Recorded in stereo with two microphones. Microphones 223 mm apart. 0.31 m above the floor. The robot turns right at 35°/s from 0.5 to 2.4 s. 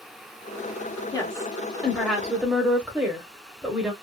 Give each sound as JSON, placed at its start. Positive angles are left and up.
{"t": 1.1, "sound": "a woman speaking", "azimuth_deg": 145, "distance_m": 1.0}